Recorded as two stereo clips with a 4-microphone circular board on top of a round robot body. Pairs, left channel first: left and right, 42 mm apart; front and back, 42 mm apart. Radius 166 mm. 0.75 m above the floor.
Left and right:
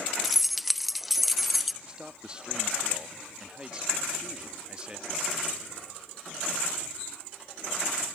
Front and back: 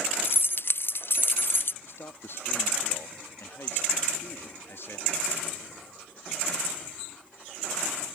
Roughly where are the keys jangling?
Ahead.